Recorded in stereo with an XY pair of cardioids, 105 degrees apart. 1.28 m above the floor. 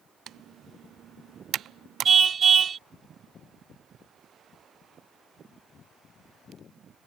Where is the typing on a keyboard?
65° right.